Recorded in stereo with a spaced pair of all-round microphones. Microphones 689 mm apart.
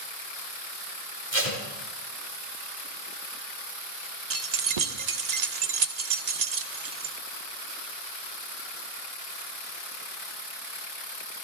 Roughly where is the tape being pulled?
Right.